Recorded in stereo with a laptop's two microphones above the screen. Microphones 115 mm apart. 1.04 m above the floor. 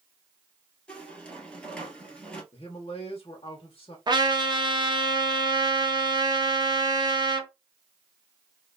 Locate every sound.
0.9 s a squeak: 10° left (ahead or behind), 1.2 m
2.5 s a man speaking: 50° left (ahead or behind), 0.6 m
4.1 s a trumpet: 40° right (ahead or behind), 0.6 m